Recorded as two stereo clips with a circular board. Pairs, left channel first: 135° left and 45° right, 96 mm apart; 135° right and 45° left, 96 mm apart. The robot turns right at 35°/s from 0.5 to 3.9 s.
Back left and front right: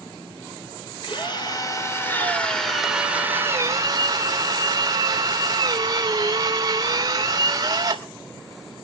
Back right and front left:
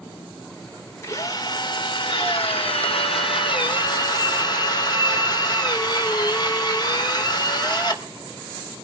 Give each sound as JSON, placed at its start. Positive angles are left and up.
{"t": 1.0, "sound": "a drill", "azimuth_deg": 165, "distance_m": 3.0}